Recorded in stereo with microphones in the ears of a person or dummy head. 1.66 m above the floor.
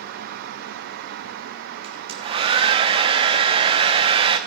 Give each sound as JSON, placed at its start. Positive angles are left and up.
{"t": 1.8, "sound": "a hair dryer", "side_deg": -30, "distance_m": 1.0}